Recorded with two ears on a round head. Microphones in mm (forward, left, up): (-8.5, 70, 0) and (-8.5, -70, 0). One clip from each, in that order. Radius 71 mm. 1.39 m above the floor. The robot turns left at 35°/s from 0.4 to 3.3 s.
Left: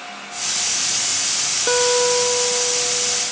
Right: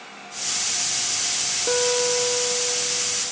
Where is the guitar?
115° left, 1.0 m; by 3.2 s 60° left, 1.0 m.